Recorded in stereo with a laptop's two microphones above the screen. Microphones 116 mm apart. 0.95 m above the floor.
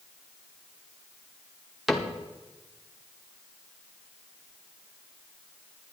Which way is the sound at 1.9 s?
Centre (ahead or behind).